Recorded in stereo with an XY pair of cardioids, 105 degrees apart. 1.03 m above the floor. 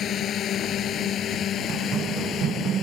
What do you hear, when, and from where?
0.0 s a drone: 60° left
1.7 s running footsteps: 65° right